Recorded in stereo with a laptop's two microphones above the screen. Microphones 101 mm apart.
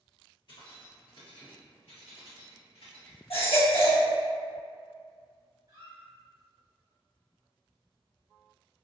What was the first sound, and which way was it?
Keys jangling, 50° left (ahead or behind).